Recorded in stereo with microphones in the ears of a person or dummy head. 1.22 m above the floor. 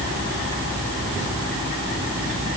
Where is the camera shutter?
I don't hear a camera shutter.